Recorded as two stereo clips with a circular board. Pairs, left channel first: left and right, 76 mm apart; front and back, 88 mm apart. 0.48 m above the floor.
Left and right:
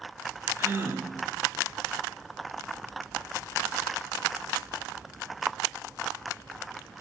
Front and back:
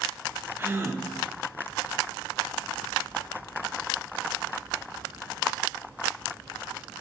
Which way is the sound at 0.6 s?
130° right.